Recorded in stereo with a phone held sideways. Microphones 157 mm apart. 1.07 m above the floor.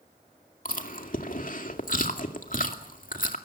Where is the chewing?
60° left (ahead or behind), 2 m.